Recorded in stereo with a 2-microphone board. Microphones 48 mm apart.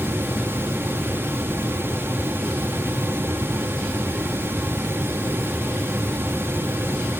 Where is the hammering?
I don't hear hammering.